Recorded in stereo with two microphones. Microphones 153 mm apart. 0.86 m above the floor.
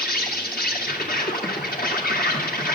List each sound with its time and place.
0.0 s an insect: 75° left (ahead or behind), 2.5 m